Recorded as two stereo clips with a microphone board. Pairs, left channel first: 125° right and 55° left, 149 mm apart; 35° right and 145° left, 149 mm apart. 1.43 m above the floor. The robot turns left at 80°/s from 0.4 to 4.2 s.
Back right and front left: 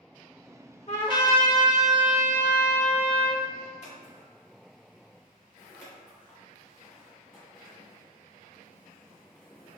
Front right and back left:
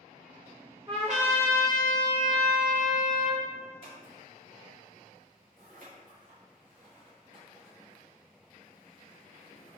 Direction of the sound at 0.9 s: 160° right.